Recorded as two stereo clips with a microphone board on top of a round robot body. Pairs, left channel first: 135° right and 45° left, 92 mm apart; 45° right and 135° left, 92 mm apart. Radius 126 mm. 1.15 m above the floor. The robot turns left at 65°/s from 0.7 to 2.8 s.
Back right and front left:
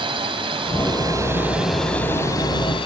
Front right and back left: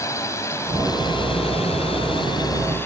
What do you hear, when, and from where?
0.0 s a drone: 15° left; by 2.9 s 110° right